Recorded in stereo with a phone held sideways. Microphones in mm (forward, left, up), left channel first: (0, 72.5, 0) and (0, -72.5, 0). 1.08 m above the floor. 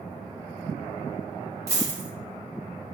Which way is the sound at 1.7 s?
25° right (ahead or behind).